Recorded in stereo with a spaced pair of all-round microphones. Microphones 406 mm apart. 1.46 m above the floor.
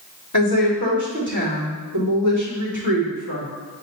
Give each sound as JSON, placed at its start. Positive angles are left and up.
{"t": 0.3, "sound": "a woman speaking", "side_deg": 45, "distance_m": 2.5}